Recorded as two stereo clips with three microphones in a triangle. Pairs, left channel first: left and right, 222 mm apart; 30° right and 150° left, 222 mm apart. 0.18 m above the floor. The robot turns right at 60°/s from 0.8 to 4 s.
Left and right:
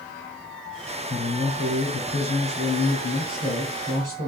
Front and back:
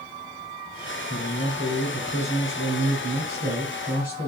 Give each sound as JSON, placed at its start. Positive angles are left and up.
{"t": 1.1, "sound": "a man speaking", "azimuth_deg": 50, "distance_m": 1.7}